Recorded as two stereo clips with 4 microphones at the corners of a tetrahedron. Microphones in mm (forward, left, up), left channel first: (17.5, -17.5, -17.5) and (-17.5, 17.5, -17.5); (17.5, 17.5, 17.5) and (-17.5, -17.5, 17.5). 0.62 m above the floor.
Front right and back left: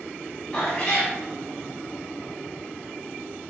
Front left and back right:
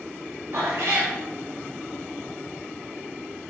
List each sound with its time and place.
0.5 s a cat meowing: 115° right, 1.4 m